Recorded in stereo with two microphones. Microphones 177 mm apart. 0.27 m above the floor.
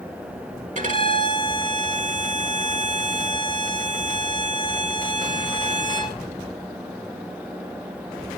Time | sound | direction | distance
0.8 | a violin | 45° right (ahead or behind) | 1.7 m